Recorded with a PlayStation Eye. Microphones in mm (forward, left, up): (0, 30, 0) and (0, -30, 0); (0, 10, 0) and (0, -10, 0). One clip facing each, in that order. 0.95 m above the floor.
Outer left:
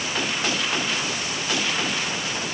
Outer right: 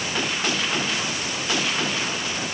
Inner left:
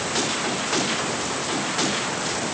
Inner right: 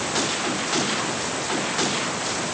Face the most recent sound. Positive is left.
No sound to turn to.